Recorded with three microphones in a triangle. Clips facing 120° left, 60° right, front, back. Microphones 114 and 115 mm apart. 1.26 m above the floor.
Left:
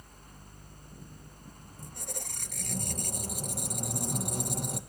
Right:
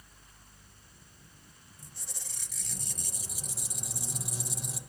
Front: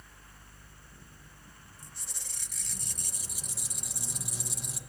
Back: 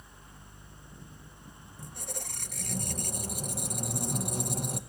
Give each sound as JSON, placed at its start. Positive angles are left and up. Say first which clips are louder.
{"t": 1.8, "sound": "a squeak", "louder": "left 10 dB, back 13 dB", "azimuth_deg": 150, "distance_m": 0.6}